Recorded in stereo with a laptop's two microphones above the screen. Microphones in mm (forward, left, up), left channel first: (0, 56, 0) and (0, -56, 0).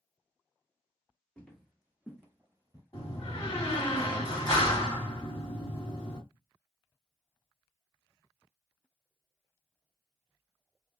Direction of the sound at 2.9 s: 35° left (ahead or behind).